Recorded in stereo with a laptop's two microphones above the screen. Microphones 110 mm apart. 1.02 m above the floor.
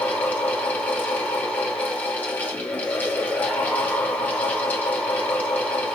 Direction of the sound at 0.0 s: 15° left (ahead or behind).